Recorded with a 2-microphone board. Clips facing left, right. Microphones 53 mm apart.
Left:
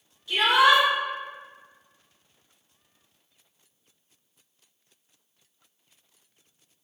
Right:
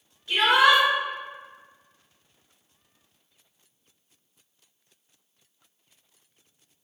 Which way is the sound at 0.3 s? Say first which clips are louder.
Even; 40° right (ahead or behind).